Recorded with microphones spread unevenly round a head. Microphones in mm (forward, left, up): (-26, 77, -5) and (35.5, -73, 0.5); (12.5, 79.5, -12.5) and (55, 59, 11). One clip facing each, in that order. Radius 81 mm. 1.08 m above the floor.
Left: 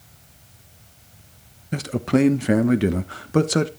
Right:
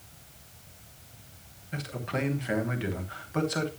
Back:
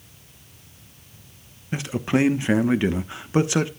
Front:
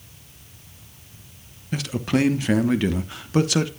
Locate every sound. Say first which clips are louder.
1.7 s a man speaking: left 14 dB, even; 110° left, 1.1 m